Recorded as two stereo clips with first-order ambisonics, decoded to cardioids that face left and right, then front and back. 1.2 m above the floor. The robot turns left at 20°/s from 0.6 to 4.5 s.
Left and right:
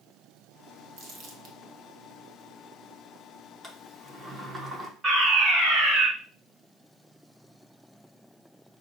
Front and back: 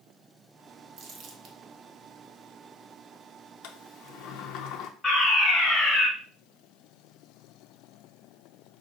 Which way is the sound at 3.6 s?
10° right.